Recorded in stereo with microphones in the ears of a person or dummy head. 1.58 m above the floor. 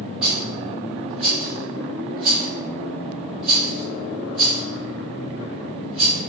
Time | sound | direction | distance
0.2 | a rattle | 5° right (ahead or behind) | 1.0 m